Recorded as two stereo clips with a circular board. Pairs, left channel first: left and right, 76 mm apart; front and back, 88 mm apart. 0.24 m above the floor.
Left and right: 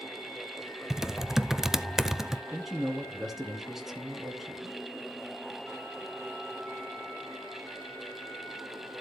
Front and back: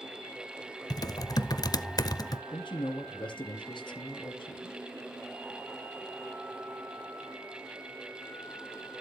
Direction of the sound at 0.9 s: 10° right.